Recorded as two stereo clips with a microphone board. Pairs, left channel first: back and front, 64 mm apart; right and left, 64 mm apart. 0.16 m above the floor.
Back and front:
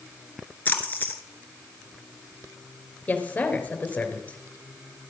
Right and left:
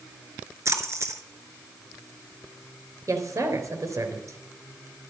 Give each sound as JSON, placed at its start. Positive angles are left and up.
{"t": 0.7, "sound": "a splash", "azimuth_deg": 120, "distance_m": 1.7}
{"t": 3.1, "sound": "a woman speaking", "azimuth_deg": 115, "distance_m": 3.0}